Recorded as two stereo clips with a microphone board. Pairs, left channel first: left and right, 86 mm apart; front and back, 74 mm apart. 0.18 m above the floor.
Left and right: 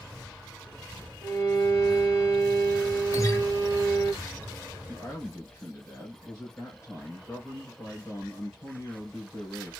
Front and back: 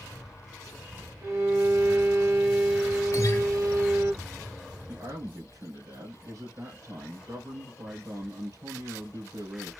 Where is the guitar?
40° left, 0.9 m.